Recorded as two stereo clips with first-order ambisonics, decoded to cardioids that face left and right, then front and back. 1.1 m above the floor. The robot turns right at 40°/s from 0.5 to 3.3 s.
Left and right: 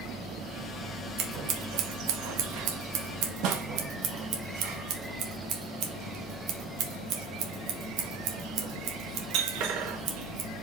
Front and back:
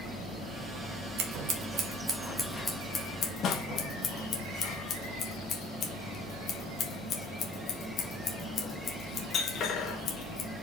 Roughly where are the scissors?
Behind right.